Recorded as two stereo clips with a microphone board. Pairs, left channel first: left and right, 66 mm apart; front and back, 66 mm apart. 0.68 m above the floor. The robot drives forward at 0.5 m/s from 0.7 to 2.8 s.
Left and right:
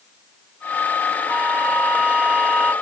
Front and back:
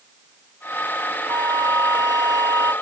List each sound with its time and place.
1.3 s a flute: 160° right; by 2.7 s 165° right